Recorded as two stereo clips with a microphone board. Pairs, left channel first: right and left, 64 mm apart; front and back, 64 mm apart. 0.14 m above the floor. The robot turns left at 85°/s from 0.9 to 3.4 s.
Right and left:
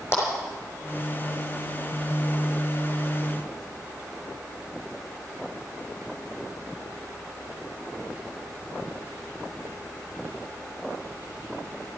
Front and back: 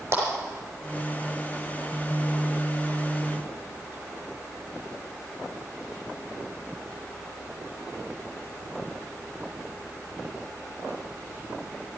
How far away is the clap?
About 6 m.